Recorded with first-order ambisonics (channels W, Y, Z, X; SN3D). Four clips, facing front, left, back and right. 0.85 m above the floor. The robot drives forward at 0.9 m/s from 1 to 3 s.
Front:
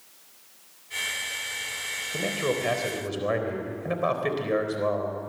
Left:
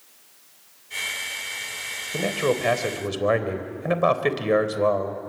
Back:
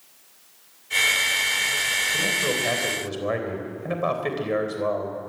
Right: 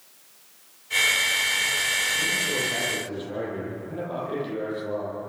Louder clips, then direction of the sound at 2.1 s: Left 1 dB, back 4 dB; 80° left.